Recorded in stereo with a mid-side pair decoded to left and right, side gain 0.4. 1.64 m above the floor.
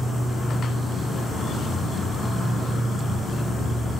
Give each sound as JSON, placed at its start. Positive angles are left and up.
{"t": 0.0, "sound": "an insect", "azimuth_deg": 55, "distance_m": 1.5}